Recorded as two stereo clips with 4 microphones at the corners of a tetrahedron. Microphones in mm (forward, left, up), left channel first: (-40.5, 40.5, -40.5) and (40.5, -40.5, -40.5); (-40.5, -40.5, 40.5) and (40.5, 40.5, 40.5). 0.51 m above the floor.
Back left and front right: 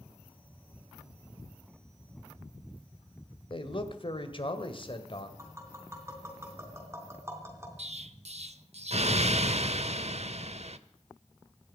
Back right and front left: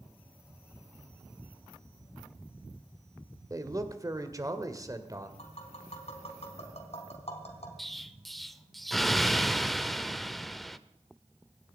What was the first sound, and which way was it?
A man speaking, 100° left.